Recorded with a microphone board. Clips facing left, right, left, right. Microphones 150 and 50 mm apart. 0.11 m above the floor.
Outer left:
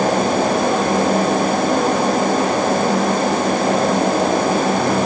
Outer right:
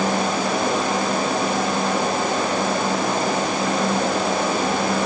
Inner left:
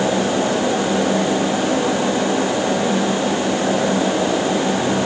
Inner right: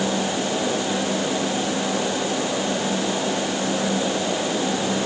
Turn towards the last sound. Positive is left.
No sound to turn to.